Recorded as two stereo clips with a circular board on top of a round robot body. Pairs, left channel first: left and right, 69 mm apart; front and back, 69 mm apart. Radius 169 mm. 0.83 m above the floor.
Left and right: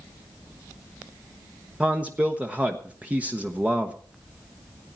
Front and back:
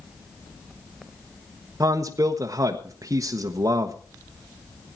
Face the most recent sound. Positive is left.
turn(degrees=-155)